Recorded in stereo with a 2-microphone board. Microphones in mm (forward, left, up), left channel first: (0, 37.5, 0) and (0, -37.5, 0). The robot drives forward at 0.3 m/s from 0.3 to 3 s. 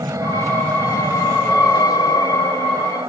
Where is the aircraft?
45° right (ahead or behind).